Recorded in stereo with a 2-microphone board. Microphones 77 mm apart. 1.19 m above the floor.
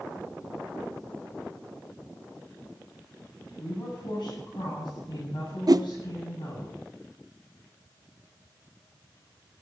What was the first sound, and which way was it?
A woman speaking, 85° left.